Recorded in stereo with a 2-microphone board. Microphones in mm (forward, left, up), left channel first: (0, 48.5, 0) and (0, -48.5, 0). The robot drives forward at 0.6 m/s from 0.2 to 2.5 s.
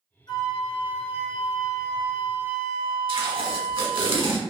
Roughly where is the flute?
Left.